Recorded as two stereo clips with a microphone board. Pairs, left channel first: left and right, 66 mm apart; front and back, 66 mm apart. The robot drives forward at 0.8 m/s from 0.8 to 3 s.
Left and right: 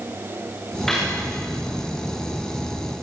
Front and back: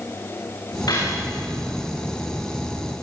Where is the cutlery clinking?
5° left, 9.5 m.